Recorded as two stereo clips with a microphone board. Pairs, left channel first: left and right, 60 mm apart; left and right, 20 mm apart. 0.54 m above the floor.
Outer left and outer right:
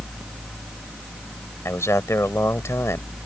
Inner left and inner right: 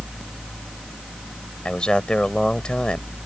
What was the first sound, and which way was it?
A man speaking, 55° left (ahead or behind).